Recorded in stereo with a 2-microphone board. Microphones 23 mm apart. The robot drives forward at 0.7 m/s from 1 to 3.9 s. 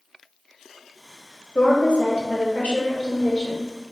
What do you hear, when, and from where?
1.6 s a woman speaking: 65° left (ahead or behind), 1.1 m; by 3.6 s 40° left (ahead or behind), 1.6 m